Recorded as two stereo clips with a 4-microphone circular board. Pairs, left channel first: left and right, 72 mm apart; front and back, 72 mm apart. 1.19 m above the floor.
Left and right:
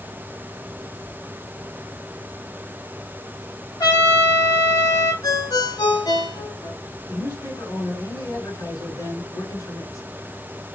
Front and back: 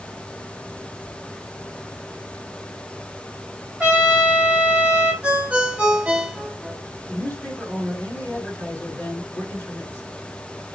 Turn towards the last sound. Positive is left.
turn(degrees=60)